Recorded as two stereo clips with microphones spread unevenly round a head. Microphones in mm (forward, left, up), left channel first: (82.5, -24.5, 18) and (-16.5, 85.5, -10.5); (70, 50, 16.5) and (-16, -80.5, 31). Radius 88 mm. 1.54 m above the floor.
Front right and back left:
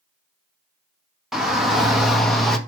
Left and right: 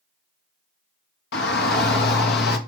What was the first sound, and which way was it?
A shout, 45° left.